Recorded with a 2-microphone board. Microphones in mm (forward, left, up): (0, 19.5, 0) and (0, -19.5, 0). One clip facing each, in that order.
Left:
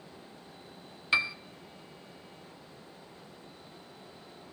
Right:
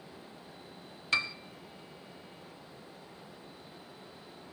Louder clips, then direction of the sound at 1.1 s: Left 3 dB; 15° left (ahead or behind).